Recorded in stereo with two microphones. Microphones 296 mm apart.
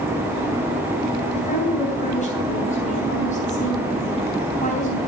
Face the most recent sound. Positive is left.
turn(degrees=25)  # may be behind; listen again after turning